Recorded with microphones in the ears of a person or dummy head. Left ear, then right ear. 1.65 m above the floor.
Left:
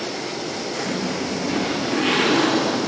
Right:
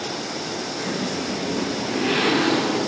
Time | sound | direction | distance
0.8 | a zipper | 40° left (ahead or behind) | 1.7 m